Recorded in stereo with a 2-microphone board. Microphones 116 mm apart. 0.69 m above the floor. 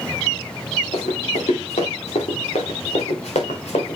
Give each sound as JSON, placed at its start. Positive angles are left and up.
{"t": 0.9, "sound": "running footsteps", "side_deg": 80, "distance_m": 5.0}